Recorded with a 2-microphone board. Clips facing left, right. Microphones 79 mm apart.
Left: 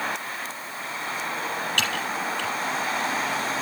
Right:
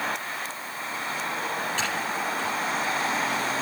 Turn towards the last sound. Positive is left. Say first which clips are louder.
# left 1 dB
turn(degrees=75)  # may be behind; listen again after turning